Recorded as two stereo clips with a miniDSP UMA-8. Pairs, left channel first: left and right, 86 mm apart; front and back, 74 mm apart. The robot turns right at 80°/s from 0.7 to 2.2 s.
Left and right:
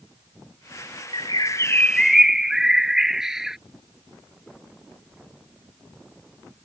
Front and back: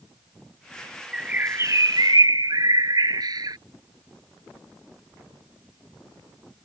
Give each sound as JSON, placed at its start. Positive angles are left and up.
{"t": 1.1, "sound": "a bird", "azimuth_deg": 100}